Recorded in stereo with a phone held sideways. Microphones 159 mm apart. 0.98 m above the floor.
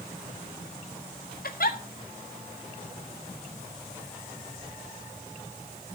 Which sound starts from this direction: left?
A giggle, at 1.4 s.